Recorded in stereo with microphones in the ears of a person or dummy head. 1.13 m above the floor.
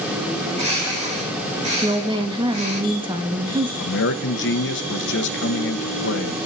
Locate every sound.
0.4 s a bird: 40° right (ahead or behind), 5.5 m
1.8 s a woman speaking: 30° right (ahead or behind), 1.5 m
3.8 s a man speaking: 55° left (ahead or behind), 1.0 m